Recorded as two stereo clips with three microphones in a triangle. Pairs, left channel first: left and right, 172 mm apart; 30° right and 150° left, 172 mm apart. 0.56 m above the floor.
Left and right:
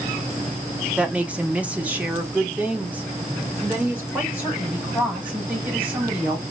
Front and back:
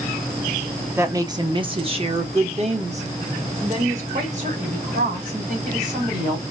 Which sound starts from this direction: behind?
A woman speaking, at 1.0 s.